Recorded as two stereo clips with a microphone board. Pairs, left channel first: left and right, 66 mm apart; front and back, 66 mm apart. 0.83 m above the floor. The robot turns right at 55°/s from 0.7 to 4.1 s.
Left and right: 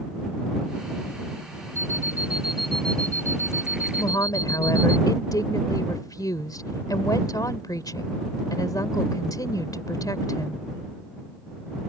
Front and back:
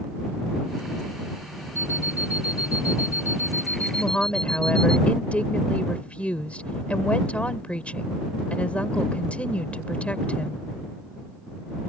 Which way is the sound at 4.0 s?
65° left.